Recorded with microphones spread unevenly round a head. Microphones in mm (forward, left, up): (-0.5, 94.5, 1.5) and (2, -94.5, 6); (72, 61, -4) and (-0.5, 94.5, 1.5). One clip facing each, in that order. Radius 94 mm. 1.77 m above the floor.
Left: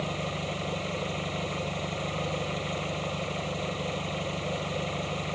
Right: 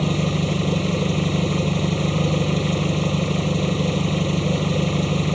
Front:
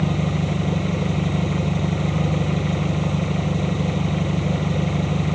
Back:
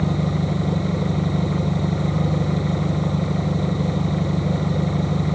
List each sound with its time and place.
0.0 s an engine running: 120° right